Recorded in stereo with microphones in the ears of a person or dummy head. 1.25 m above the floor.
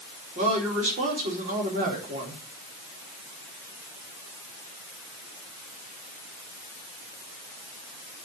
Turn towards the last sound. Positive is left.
turn(degrees=-40)  # may be behind; listen again after turning